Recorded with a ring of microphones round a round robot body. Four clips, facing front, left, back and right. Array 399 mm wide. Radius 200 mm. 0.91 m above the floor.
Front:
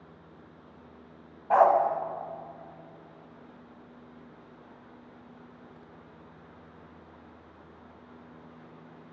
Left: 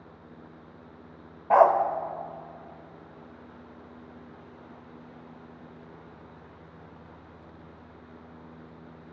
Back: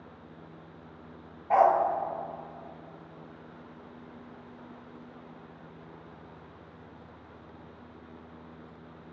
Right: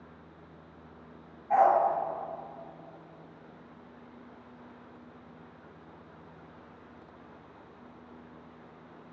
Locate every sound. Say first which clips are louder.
1.5 s a dog barking: left 4 dB, front 1 dB; 80° left, 1.8 m